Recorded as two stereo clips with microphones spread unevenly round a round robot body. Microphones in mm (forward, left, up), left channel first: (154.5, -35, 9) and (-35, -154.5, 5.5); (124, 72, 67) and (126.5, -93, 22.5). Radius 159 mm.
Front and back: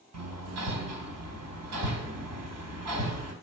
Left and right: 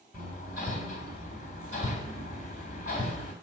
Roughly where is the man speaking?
No man speaking in this recording.